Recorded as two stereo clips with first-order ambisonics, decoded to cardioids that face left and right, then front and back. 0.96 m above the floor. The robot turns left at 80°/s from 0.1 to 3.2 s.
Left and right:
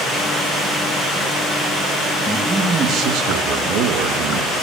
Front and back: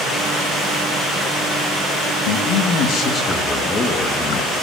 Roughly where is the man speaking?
Ahead.